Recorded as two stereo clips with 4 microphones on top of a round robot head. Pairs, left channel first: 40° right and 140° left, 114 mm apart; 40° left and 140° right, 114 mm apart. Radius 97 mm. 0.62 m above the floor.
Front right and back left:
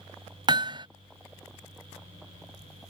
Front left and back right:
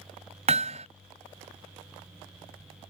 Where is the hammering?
170° right.